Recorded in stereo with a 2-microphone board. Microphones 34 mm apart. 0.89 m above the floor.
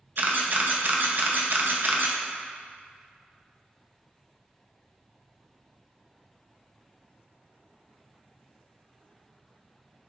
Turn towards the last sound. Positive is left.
turn(degrees=-55)  # may be behind; listen again after turning